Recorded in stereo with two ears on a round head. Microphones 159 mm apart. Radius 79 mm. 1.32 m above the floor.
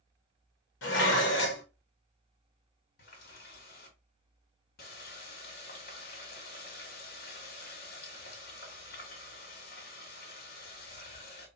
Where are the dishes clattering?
70° left (ahead or behind), 1.1 m.